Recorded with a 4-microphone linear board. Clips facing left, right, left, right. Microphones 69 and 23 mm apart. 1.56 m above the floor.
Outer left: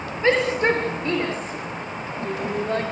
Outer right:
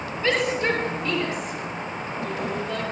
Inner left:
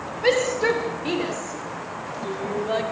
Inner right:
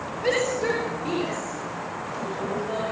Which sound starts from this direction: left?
A shout, at 0.2 s.